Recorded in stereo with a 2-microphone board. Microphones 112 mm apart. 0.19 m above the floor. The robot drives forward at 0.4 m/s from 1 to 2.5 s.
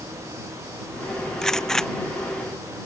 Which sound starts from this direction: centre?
A gunshot, at 1.4 s.